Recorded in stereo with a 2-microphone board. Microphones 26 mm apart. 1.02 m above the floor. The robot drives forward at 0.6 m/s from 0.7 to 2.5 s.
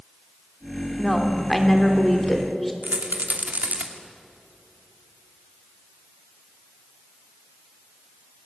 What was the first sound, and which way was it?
A woman speaking, 5° left (ahead or behind).